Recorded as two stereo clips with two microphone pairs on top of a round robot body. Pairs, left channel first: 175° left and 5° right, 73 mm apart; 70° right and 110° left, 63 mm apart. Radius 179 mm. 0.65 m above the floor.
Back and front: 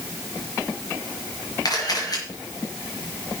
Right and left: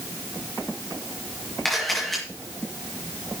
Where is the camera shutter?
155° right, 4.5 m.